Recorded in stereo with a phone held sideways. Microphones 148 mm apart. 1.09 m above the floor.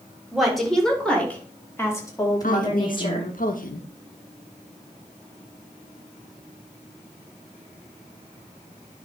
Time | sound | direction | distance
0.3 | a woman speaking | centre (ahead or behind) | 3.5 m
2.4 | a woman speaking | 70° left (ahead or behind) | 1.2 m